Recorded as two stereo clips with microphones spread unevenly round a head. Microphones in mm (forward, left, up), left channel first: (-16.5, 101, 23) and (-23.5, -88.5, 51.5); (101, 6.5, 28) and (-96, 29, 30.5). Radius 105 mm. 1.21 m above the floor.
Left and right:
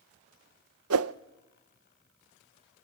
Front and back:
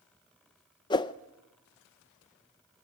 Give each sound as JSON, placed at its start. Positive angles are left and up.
{"t": 0.9, "sound": "a whoosh", "azimuth_deg": -75, "distance_m": 0.5}